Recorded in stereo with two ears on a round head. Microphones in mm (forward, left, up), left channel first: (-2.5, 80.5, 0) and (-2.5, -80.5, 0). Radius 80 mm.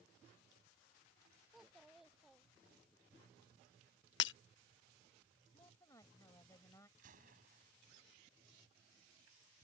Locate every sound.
1.5 s a child speaking: centre (ahead or behind)
4.2 s breaking glass: 70° left (ahead or behind)
5.5 s a woman speaking: 20° left (ahead or behind)
7.0 s a gunshot: 50° right (ahead or behind)